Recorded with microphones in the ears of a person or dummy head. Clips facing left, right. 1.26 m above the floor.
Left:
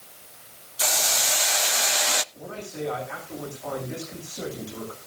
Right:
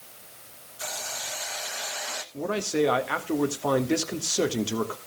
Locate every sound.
0.8 s a hiss: 60° left (ahead or behind), 0.6 m
2.3 s a man speaking: 70° right (ahead or behind), 1.8 m